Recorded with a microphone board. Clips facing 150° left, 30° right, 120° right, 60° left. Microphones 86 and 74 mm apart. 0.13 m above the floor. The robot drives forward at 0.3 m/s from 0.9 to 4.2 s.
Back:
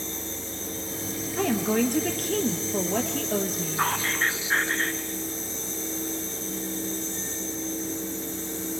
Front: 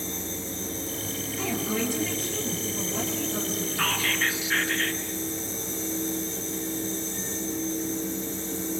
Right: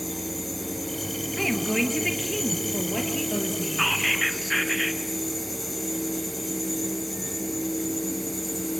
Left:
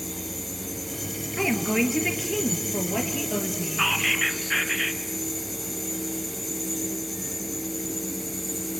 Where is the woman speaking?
135° left, 3 m; by 3.9 s 145° left, 3.5 m.